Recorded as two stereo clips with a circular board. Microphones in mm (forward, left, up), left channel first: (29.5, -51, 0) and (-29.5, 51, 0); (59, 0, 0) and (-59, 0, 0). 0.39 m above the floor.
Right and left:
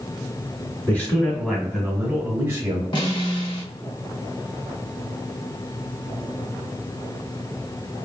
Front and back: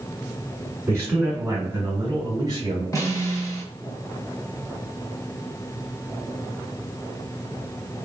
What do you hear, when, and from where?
0.9 s a man speaking: 120° right, 1.2 m; by 2.8 s 145° left, 1.3 m
2.9 s a snare drum: 50° right, 1.1 m